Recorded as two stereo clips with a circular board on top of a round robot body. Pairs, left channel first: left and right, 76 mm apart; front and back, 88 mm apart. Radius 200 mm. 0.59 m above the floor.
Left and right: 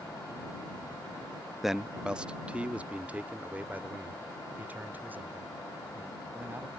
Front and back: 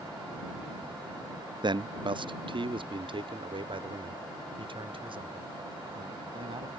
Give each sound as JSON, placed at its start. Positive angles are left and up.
{"t": 1.6, "sound": "a man speaking", "azimuth_deg": -175}